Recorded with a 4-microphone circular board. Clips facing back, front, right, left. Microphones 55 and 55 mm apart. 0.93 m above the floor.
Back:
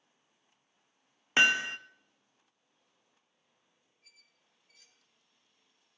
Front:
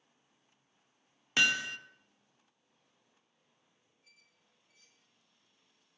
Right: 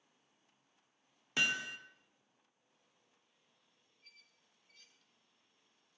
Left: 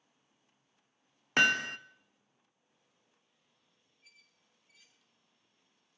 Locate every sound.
1.4 s hammering: 125° left, 0.6 m
4.0 s a squeak: 175° left, 1.0 m